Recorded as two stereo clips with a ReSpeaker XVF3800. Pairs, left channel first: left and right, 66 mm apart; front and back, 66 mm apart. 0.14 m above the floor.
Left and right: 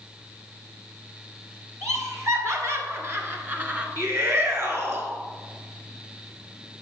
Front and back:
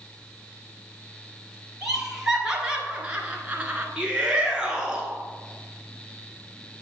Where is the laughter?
100° right, 1.9 m; by 3.9 s 135° right, 1.2 m.